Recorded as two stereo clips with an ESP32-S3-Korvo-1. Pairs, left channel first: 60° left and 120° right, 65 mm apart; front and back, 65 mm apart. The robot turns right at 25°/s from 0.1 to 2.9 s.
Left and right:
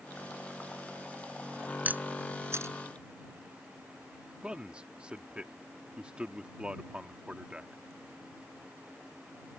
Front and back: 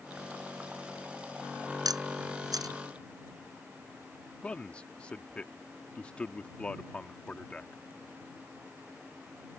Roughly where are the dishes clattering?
No dishes clattering in this recording.